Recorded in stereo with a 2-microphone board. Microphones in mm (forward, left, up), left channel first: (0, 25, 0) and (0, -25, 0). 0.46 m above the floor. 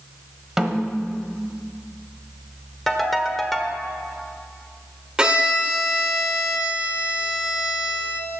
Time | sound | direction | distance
0.6 | a snare drum | 10° right (ahead or behind) | 1.0 m
2.9 | a ringtone | 5° left (ahead or behind) | 1.0 m
5.2 | a violin | 20° right (ahead or behind) | 1.4 m